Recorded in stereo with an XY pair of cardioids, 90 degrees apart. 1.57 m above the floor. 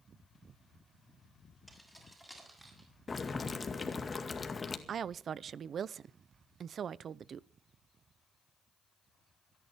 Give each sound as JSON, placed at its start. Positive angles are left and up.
{"t": 1.7, "sound": "keys jangling", "azimuth_deg": -10, "distance_m": 7.0}
{"t": 3.1, "sound": "boiling", "azimuth_deg": 30, "distance_m": 2.0}
{"t": 4.9, "sound": "a woman speaking", "azimuth_deg": -60, "distance_m": 0.6}